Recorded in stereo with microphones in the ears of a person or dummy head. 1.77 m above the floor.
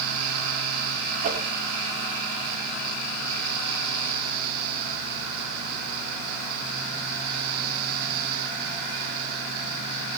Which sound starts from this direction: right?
A whoosh, at 1.2 s.